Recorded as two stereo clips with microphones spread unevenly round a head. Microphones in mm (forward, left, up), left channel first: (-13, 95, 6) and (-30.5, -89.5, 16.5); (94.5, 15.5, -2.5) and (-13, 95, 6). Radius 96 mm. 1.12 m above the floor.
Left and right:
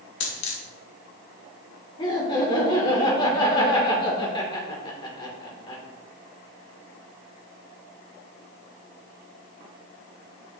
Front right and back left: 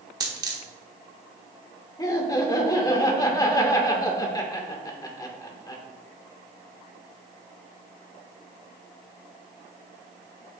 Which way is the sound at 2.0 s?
20° left.